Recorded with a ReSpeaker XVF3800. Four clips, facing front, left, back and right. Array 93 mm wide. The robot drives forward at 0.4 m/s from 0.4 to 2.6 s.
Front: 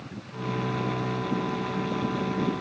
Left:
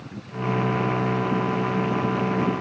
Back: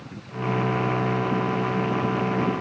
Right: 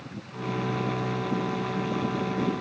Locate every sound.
Only background noise.